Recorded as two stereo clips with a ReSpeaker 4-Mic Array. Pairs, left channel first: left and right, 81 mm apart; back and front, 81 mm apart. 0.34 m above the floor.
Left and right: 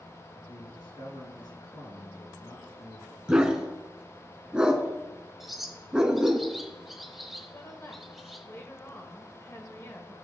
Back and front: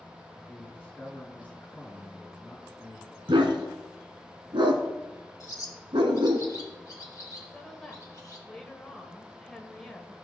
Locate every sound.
0.3 s a man speaking: 110° left, 3.5 m
3.3 s a dog barking: 10° right, 1.2 m
5.4 s a bird: 175° right, 1.1 m
7.5 s a woman speaking: 100° left, 1.4 m